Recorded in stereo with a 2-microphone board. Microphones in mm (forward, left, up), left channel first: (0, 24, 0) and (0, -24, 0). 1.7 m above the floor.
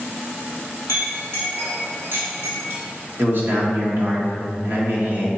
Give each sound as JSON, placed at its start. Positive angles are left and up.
{"t": 0.9, "sound": "a clink", "side_deg": -65, "distance_m": 2.0}
{"t": 3.2, "sound": "a man speaking", "side_deg": -50, "distance_m": 1.7}